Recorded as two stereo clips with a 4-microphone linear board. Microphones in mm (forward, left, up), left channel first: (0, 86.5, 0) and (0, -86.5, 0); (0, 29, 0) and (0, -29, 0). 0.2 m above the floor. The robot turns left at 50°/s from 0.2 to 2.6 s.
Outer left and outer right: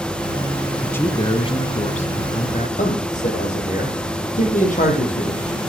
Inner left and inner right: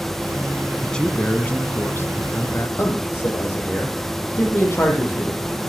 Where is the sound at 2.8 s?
45° left (ahead or behind), 7.5 m.